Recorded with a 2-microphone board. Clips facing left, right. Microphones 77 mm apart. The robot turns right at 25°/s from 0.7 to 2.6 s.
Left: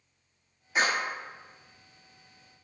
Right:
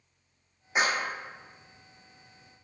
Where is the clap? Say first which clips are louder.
Even; 20° right (ahead or behind), 3.5 m; by 1.1 s 10° right (ahead or behind), 3.5 m.